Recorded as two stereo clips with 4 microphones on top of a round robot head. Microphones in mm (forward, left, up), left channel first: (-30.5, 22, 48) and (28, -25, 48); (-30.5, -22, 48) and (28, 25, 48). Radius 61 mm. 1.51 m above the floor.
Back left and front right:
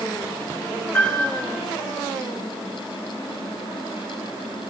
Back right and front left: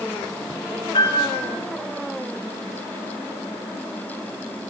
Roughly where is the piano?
Behind right.